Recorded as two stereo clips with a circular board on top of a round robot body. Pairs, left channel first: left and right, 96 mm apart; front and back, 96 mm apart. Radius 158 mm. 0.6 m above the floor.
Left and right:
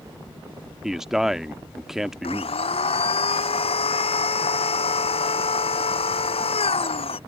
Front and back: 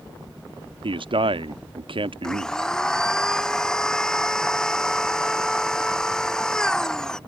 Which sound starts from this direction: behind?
A man speaking, at 0.8 s.